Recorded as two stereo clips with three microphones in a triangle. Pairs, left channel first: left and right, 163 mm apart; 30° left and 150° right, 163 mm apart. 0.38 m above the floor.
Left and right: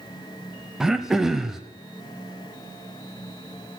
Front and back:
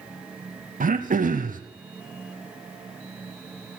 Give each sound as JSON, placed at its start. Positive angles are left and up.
{"t": 0.8, "sound": "throat clearing", "azimuth_deg": -175, "distance_m": 0.8}